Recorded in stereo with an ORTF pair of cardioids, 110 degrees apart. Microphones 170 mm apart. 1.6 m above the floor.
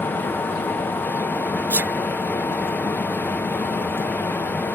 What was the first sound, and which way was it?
A fan, 10° left.